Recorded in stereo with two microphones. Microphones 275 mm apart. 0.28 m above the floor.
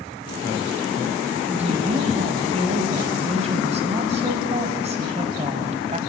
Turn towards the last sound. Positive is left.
turn(degrees=-25)  # may be behind; listen again after turning